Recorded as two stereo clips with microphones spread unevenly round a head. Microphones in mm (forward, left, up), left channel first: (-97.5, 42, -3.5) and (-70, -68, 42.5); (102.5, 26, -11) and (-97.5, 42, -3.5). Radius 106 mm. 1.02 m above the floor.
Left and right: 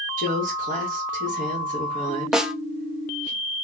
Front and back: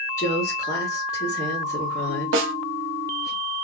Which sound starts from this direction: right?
A woman speaking, at 0.2 s.